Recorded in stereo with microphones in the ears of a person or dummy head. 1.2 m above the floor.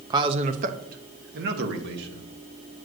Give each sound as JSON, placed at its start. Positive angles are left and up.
{"t": 0.1, "sound": "a man speaking", "side_deg": -20, "distance_m": 0.5}